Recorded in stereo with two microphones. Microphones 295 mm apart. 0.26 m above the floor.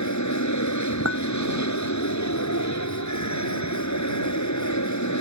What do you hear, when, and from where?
0.0 s an aircraft: 70° left (ahead or behind)
1.1 s a clink: 50° right (ahead or behind)